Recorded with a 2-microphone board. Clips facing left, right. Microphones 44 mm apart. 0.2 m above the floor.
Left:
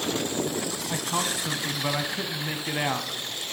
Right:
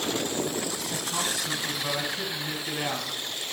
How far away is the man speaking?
About 1.1 m.